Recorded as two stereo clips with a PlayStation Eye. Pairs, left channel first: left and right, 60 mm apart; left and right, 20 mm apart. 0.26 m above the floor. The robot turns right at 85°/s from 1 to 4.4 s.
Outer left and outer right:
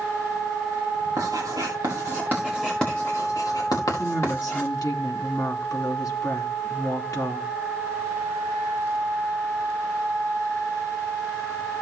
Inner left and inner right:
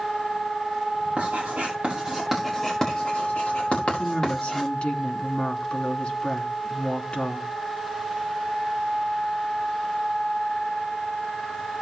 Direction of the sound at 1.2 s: 55° right (ahead or behind).